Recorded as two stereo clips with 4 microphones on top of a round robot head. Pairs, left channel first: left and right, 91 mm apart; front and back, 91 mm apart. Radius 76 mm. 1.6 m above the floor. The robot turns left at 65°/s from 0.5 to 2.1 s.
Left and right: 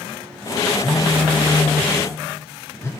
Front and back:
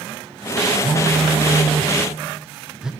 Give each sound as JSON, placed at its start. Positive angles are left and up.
{"t": 0.8, "sound": "a phone buzzing", "azimuth_deg": -170, "distance_m": 0.6}